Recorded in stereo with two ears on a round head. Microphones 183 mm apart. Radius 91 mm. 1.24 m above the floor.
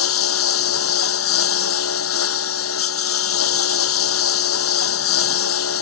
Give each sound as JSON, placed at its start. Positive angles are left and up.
{"t": 0.0, "sound": "a lawn mower", "side_deg": 85}